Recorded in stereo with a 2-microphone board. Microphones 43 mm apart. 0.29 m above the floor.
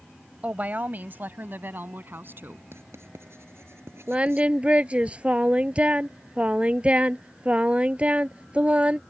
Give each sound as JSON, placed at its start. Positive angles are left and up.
{"t": 0.4, "sound": "a woman speaking", "side_deg": -35}
{"t": 2.7, "sound": "writing", "side_deg": -70}
{"t": 4.1, "sound": "singing", "side_deg": -25}